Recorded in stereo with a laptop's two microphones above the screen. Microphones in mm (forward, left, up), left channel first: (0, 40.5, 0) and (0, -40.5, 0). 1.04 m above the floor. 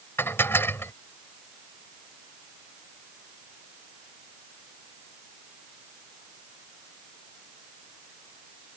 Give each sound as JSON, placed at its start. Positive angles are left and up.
{"t": 0.2, "sound": "dishes clattering", "side_deg": 30}